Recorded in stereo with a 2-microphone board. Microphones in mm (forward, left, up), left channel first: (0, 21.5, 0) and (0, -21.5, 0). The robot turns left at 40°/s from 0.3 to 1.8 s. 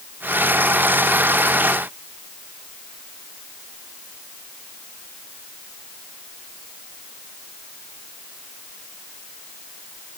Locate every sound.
Only background noise.